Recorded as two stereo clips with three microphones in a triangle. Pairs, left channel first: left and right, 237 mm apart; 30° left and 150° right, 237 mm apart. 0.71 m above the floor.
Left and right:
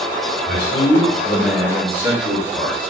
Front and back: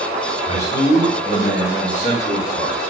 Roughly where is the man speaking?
Left.